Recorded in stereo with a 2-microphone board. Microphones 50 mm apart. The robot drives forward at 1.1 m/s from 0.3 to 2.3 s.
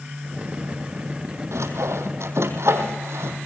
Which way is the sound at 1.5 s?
75° right (ahead or behind).